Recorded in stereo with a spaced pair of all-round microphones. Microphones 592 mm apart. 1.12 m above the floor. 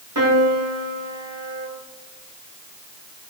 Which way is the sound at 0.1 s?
30° right (ahead or behind).